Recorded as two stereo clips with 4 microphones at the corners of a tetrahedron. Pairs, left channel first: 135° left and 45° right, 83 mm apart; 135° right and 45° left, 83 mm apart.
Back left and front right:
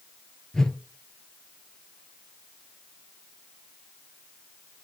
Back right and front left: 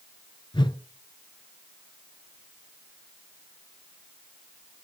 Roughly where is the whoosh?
Behind right.